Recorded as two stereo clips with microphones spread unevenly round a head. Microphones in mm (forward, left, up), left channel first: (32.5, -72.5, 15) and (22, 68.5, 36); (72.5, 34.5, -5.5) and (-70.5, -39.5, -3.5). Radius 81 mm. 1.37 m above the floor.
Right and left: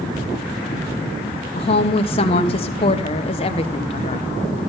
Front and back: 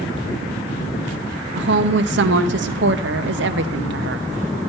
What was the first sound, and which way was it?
A woman speaking, 135° right.